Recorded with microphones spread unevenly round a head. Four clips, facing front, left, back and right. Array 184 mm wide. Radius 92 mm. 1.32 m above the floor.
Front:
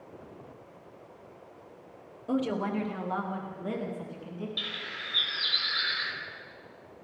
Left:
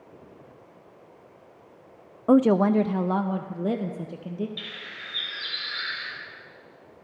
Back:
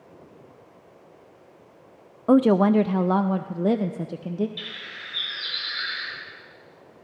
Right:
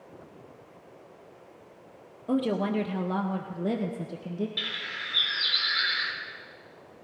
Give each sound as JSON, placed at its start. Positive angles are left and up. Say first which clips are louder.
{"t": 2.3, "sound": "a woman speaking", "louder": "left 8 dB, back 13 dB", "azimuth_deg": 135, "distance_m": 0.6}
{"t": 4.6, "sound": "a bird", "louder": "right 3 dB, even", "azimuth_deg": -45, "distance_m": 4.0}